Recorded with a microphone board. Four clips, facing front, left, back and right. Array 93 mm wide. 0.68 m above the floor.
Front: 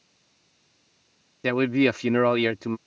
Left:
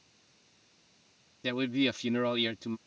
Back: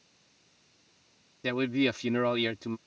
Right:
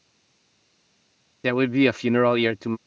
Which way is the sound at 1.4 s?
55° right.